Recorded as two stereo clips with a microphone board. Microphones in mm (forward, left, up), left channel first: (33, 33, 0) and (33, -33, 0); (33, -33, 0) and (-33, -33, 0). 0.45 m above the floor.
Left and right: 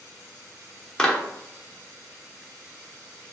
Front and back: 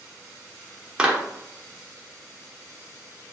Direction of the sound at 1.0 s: 140° left.